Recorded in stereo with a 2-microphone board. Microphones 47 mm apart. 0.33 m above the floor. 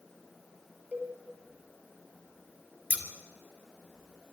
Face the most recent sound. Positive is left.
turn(degrees=-25)  # may be behind; listen again after turning